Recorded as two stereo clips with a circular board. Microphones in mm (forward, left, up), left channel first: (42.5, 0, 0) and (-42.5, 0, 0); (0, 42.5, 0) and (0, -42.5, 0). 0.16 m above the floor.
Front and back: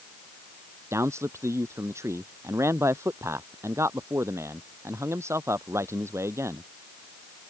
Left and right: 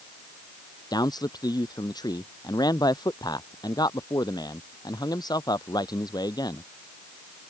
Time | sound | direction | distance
0.9 | a man speaking | 125° left | ?